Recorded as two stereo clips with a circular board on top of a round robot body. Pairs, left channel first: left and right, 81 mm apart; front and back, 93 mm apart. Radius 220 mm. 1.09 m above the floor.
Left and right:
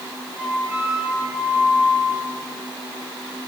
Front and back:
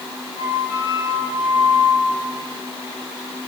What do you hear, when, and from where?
0.4 s a flute: 10° right, 9.5 m